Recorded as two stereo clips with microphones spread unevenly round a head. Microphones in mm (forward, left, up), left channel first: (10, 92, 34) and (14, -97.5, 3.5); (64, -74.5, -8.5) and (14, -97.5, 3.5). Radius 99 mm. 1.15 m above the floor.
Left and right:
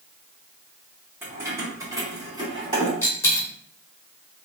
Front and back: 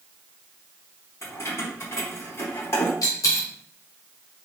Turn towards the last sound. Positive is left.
turn(degrees=20)